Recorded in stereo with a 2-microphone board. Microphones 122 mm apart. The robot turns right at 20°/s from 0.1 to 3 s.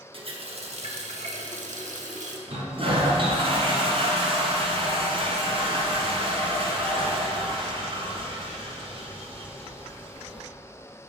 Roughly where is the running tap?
Behind right.